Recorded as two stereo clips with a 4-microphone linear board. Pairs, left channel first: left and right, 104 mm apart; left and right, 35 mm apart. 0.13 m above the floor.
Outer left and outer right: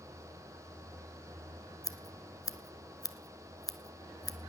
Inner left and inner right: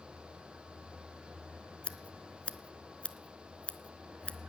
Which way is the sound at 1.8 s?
35° left (ahead or behind).